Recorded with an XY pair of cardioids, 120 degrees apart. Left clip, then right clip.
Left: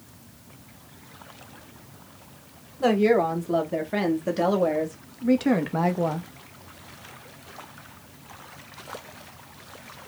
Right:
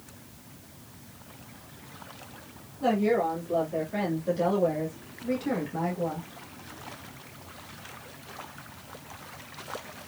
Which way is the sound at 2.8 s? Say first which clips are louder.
Left 5 dB; 65° left.